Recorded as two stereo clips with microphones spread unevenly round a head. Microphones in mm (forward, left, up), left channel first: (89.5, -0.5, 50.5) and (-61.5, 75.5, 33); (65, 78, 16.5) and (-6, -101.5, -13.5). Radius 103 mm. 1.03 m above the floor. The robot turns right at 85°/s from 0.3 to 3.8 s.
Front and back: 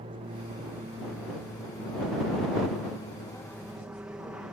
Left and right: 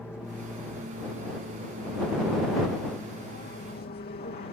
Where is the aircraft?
155° left; by 4.5 s 75° left.